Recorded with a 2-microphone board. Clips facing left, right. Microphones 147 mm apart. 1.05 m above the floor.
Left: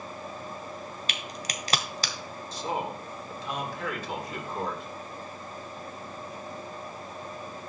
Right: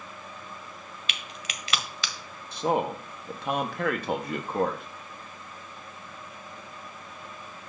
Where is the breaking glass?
No breaking glass in this recording.